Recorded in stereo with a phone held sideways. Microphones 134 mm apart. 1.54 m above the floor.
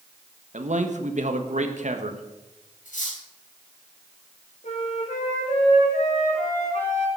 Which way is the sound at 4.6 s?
70° left (ahead or behind).